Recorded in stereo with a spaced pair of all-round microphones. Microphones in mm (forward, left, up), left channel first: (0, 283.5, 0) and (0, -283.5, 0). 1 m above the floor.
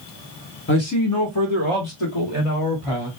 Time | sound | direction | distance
0.7 | a man speaking | 20° left (ahead or behind) | 0.6 m